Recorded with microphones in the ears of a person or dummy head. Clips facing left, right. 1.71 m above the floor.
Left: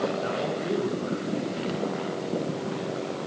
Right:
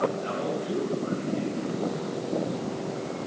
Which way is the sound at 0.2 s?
60° left (ahead or behind).